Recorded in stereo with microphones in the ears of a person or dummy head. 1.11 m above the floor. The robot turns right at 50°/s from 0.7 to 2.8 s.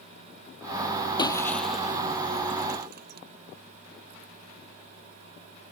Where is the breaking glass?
30° left (ahead or behind); by 3.2 s 55° right (ahead or behind).